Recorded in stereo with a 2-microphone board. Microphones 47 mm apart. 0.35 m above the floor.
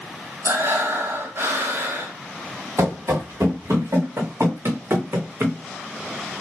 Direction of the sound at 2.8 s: 70° right (ahead or behind).